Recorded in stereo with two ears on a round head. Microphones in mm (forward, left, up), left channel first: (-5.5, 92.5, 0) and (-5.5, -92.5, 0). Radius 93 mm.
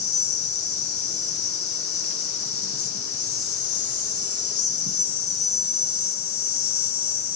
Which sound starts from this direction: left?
An insect, at 0.0 s.